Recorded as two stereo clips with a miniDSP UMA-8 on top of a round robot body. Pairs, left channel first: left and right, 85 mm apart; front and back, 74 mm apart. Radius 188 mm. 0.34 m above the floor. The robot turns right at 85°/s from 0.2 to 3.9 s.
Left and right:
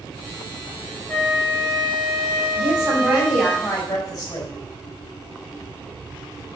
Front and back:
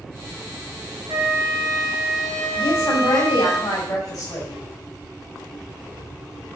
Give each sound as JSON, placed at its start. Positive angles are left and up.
{"t": 1.1, "sound": "a flute", "azimuth_deg": 165, "distance_m": 4.5}
{"t": 2.6, "sound": "a woman speaking", "azimuth_deg": -65, "distance_m": 3.5}